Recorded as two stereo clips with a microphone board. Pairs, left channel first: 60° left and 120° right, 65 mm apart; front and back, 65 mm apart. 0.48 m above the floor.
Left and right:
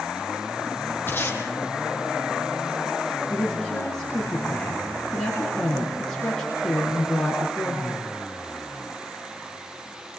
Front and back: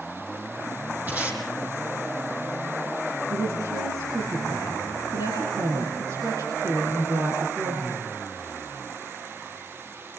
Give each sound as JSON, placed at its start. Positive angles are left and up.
{"t": 1.1, "sound": "tape being pulled", "azimuth_deg": 120, "distance_m": 5.0}
{"t": 3.3, "sound": "a woman speaking", "azimuth_deg": 145, "distance_m": 7.5}